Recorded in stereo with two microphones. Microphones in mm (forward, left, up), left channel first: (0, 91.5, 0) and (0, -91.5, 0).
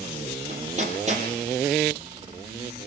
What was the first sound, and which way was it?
Hammering, 40° right (ahead or behind).